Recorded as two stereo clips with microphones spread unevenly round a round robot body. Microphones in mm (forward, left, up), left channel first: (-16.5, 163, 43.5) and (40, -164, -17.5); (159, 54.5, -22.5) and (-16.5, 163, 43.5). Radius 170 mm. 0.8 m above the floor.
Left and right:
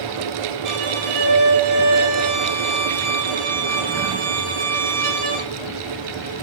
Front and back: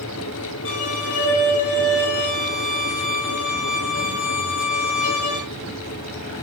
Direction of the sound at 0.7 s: 50° right.